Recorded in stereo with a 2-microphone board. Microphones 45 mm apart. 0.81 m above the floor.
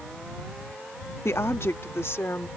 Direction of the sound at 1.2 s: 65° left (ahead or behind).